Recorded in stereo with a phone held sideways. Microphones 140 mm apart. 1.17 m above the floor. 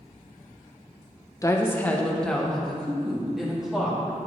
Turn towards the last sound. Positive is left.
turn(degrees=-5)  # may be behind; listen again after turning